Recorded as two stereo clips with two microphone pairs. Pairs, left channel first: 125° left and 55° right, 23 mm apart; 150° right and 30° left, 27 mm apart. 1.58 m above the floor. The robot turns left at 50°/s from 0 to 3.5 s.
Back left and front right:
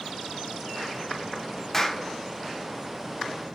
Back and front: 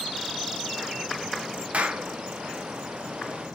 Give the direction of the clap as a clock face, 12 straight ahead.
10 o'clock.